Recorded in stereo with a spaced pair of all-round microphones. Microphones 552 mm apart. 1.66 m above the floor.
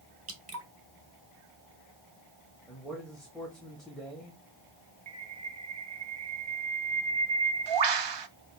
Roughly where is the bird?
Right.